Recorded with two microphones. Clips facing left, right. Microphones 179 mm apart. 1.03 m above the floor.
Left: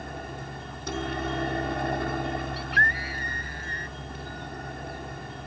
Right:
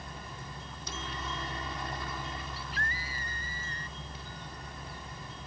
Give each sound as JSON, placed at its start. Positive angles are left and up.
{"t": 0.0, "sound": "a helicopter", "side_deg": 60}
{"t": 2.6, "sound": "a scream", "side_deg": 70}